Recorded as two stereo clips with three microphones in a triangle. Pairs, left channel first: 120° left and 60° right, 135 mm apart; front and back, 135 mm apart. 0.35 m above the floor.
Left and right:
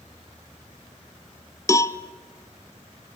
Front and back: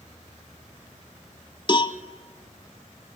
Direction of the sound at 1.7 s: 50° left.